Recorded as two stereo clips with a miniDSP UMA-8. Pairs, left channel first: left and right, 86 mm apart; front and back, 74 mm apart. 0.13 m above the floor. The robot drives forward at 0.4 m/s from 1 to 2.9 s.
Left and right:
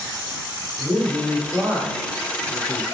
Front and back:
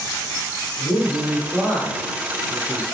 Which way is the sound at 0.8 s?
125° right.